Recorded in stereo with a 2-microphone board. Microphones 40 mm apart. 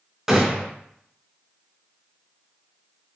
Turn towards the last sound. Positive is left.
turn(degrees=-10)  # may be behind; listen again after turning